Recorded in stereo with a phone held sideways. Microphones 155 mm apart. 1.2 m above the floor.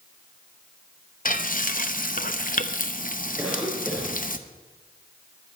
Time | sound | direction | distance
1.2 | frying | 60° left (ahead or behind) | 0.9 m
3.4 | a cough | 10° right (ahead or behind) | 5.5 m